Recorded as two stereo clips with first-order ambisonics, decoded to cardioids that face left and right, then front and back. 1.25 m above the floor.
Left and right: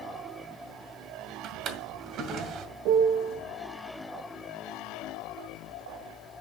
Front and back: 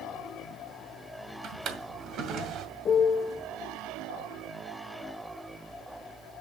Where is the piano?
60° right, 1.0 m.